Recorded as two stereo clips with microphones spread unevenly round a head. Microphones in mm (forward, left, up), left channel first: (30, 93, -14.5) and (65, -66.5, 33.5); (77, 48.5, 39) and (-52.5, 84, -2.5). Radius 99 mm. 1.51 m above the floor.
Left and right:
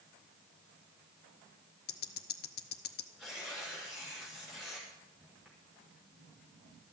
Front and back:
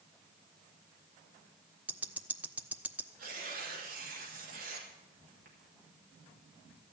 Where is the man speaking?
No man speaking in this recording.